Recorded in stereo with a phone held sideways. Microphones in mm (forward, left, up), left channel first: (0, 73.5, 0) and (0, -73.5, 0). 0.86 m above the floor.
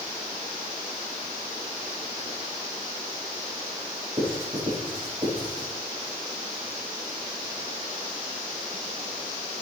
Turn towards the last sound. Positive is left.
turn(degrees=-40)  # may be behind; listen again after turning